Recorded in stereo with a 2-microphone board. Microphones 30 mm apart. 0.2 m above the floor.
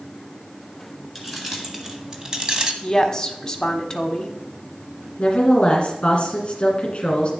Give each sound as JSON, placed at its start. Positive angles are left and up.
{"t": 1.1, "sound": "keys jangling", "side_deg": -5, "distance_m": 1.9}
{"t": 2.8, "sound": "a woman speaking", "side_deg": 20, "distance_m": 1.1}
{"t": 5.2, "sound": "a woman speaking", "side_deg": 40, "distance_m": 2.0}